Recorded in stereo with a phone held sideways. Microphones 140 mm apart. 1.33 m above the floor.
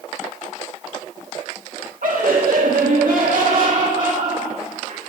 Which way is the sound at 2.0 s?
80° right.